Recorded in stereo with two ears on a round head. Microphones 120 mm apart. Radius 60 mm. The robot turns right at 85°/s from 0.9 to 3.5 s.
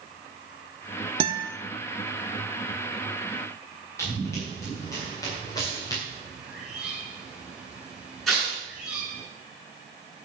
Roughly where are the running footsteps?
Left.